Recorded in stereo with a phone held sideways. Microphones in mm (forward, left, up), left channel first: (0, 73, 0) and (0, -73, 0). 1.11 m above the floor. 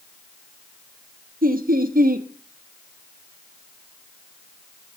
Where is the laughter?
75° right (ahead or behind), 1.4 m.